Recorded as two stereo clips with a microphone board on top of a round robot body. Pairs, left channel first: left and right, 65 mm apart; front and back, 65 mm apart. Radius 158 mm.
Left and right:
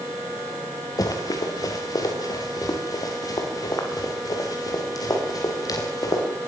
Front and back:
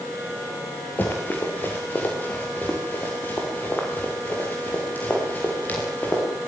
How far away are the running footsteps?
About 6 m.